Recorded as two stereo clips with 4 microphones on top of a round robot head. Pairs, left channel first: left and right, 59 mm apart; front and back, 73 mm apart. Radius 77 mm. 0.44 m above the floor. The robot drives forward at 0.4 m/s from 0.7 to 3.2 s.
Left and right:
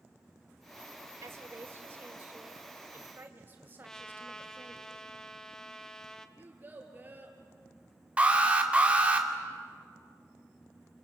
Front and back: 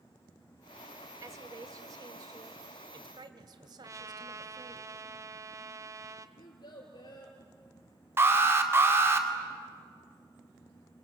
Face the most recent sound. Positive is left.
turn(degrees=-145)